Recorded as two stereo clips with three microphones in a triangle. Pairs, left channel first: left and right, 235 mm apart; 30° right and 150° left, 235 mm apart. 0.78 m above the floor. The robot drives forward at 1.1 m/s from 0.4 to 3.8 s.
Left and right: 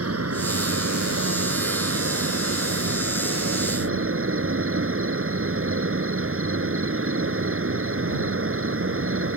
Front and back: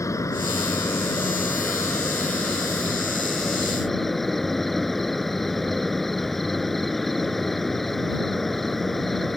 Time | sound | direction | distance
0.0 | an insect | 110° right | ?